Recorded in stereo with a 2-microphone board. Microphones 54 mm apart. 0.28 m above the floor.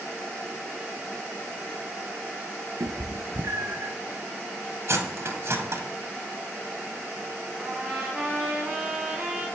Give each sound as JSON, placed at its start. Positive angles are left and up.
{"t": 2.8, "sound": "a cat meowing", "side_deg": -85, "distance_m": 0.7}
{"t": 4.9, "sound": "cutlery clinking", "side_deg": -55, "distance_m": 0.7}
{"t": 7.6, "sound": "a trumpet", "side_deg": -20, "distance_m": 1.7}